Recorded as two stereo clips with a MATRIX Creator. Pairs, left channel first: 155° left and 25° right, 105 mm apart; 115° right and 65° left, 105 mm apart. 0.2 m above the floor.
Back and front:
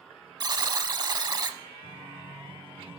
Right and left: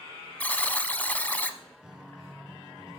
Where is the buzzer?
45° right, 0.6 m.